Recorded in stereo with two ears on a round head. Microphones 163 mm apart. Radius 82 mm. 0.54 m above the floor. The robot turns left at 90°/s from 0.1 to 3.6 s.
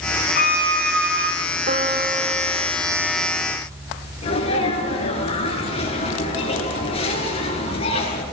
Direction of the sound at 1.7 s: 115° right.